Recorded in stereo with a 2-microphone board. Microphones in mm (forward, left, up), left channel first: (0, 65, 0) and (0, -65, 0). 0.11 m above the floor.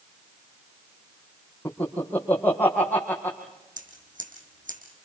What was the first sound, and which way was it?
Laughter, 10° left (ahead or behind).